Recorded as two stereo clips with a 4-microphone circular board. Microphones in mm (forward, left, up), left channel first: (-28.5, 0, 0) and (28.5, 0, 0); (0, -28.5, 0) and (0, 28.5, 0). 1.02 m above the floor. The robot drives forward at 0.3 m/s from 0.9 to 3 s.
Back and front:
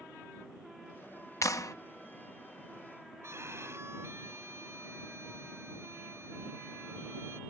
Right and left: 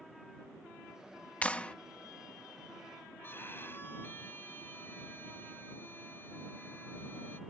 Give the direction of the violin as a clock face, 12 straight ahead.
1 o'clock.